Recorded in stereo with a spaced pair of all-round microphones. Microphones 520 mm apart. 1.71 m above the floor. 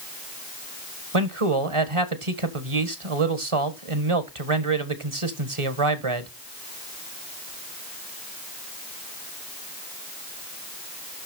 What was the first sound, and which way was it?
A man speaking, 70° right (ahead or behind).